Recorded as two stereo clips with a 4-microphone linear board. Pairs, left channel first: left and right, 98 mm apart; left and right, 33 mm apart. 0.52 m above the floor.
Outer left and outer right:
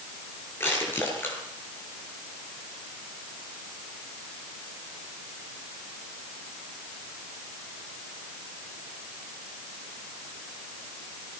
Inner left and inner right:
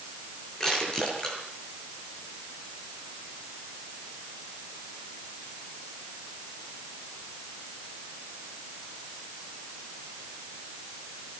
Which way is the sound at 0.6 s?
25° left (ahead or behind).